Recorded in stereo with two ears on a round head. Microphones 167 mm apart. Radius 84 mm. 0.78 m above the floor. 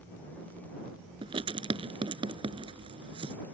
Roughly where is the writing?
Right.